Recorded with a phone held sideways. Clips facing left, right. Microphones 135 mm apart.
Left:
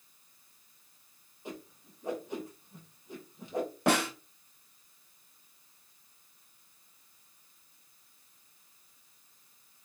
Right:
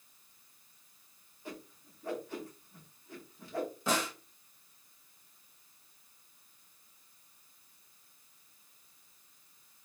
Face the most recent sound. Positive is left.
turn(degrees=70)  # may be behind; listen again after turning